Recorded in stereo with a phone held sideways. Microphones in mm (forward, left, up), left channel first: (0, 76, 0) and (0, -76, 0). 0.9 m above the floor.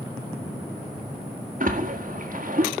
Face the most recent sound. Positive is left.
turn(degrees=-55)  # may be behind; listen again after turning